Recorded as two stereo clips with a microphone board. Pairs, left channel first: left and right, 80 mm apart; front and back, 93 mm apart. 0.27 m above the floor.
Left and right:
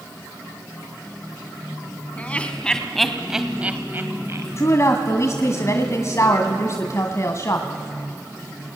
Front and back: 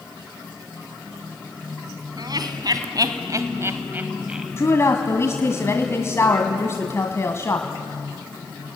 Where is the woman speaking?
50° left, 1.7 m.